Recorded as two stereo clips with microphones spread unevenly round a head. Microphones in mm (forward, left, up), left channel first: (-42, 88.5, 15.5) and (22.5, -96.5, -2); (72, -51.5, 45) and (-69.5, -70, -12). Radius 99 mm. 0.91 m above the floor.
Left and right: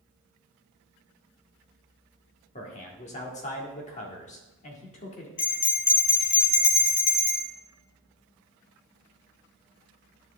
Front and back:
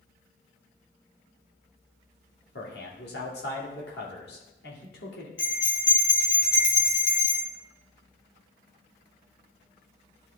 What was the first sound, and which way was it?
A man speaking, 50° left.